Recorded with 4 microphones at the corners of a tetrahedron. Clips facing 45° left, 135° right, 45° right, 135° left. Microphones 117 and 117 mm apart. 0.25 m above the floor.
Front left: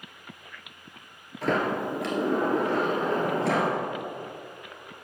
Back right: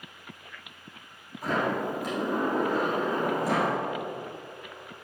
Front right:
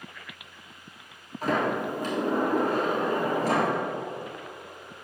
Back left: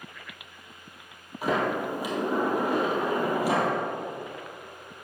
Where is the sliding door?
55° left, 1.6 m.